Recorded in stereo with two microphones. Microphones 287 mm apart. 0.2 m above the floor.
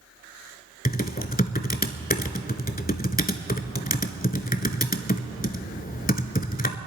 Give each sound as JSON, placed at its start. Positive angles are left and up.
{"t": 0.8, "sound": "typing on a keyboard", "side_deg": 30, "distance_m": 0.7}